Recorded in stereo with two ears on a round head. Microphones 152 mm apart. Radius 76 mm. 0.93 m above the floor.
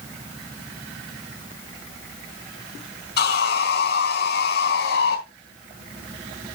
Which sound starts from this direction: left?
Sawing, at 3.2 s.